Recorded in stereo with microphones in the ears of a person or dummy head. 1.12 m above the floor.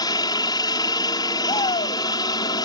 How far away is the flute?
I don't hear a flute.